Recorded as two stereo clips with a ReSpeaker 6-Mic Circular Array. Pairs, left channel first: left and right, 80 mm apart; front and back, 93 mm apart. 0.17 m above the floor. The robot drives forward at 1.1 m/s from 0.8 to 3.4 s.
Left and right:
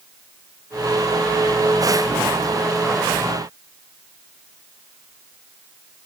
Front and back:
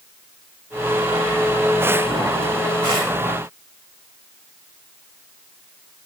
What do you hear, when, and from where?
Only background noise.